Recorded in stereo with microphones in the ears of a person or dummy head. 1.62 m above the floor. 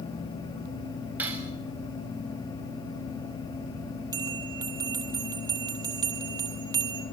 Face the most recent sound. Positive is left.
turn(degrees=-25)  # may be behind; listen again after turning